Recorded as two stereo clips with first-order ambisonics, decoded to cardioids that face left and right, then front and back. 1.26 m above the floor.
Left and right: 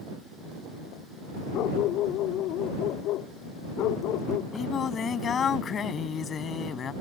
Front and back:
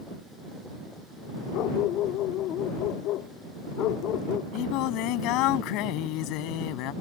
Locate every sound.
1.5 s a dog barking: 45° left
4.5 s singing: 25° left